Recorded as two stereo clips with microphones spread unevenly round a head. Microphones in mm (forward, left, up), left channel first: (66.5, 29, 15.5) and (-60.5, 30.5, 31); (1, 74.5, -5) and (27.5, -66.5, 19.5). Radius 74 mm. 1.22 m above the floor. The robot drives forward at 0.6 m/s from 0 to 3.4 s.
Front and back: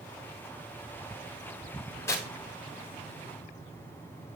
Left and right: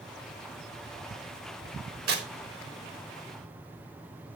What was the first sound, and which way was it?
Tearing paper, 75° right.